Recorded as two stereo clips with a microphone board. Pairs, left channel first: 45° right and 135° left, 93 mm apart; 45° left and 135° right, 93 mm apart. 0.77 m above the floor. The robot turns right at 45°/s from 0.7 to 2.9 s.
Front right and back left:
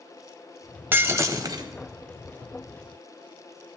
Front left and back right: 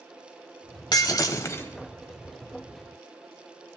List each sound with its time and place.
0.9 s breaking glass: 70° left, 0.8 m; by 1.7 s 105° left, 0.8 m